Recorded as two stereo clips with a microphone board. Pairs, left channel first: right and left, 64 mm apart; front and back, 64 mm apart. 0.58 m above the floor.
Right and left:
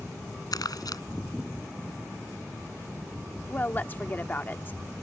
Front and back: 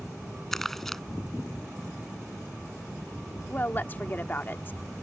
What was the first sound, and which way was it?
Crumpling, 85° right.